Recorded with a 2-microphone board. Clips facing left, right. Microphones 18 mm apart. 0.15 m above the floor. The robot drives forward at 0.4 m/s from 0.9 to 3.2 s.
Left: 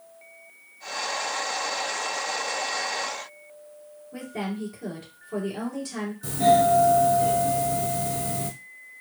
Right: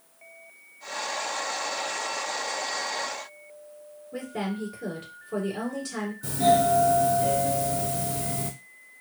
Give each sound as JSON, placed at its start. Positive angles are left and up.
{"t": 4.1, "sound": "a woman speaking", "side_deg": -15, "distance_m": 2.0}
{"t": 6.2, "sound": "a doorbell", "side_deg": 5, "distance_m": 1.8}